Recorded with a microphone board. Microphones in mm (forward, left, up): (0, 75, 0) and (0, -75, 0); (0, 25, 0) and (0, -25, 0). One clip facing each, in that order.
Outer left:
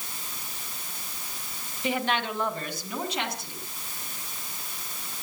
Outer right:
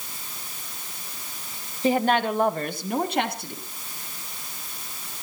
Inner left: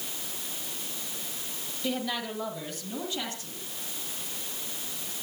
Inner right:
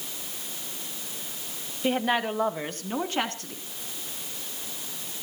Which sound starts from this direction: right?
A woman speaking, at 1.8 s.